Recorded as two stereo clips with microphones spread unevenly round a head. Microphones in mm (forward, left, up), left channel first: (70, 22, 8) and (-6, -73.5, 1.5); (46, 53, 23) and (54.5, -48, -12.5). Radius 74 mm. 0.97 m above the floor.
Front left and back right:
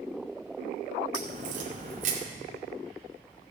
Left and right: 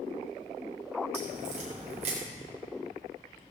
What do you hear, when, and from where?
1.1 s a crack: 120° right, 2.5 m